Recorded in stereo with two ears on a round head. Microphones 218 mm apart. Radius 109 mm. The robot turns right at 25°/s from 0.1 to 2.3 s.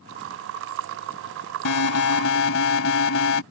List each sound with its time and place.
1.6 s an alarm: 75° left (ahead or behind); by 3.4 s 60° left (ahead or behind)